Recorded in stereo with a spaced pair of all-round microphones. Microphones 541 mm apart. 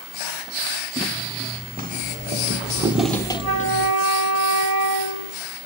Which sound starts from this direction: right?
A flute, at 3.4 s.